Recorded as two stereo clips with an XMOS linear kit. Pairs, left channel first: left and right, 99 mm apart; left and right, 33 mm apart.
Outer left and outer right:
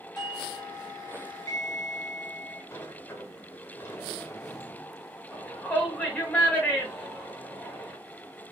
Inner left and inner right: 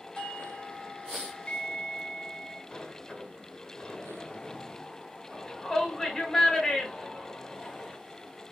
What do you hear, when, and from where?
0.1 s a doorbell: 40° left (ahead or behind), 2.5 m
2.7 s a sliding door: 25° left (ahead or behind), 1.0 m
5.3 s a shout: 15° left (ahead or behind), 1.4 m